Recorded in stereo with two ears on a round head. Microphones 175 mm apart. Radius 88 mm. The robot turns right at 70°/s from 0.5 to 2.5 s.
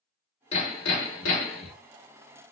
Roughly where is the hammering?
Ahead left.